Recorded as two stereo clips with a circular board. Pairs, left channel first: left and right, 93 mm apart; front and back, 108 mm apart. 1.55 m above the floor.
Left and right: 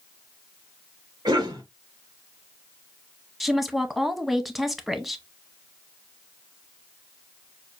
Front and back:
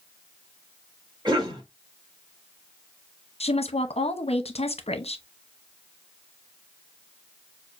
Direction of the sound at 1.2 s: 135° right.